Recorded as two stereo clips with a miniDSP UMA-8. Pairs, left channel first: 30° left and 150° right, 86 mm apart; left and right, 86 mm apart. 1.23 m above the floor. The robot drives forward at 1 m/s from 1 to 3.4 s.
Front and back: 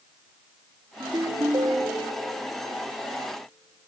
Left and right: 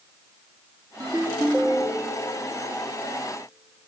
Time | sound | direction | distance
1.0 | a ringtone | 115° right | 1.0 m